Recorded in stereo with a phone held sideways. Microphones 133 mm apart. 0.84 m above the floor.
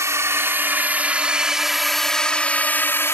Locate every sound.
0.0 s a drone: 25° right (ahead or behind); by 3.1 s 20° left (ahead or behind)